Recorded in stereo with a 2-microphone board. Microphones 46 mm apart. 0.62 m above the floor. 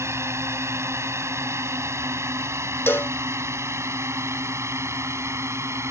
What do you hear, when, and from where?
0.0 s a drone: 70° right (ahead or behind); by 5.9 s 75° right (ahead or behind)
2.9 s a cowbell: 55° left (ahead or behind)